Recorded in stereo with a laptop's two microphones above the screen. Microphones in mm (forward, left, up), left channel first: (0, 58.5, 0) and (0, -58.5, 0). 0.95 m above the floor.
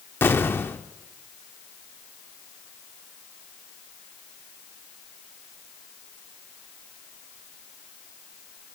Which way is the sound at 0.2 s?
20° left (ahead or behind).